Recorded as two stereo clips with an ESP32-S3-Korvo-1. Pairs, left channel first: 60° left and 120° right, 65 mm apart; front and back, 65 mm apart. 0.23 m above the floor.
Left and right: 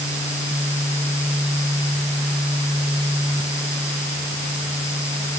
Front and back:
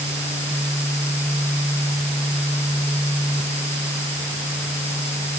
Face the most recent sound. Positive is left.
No sound to turn to.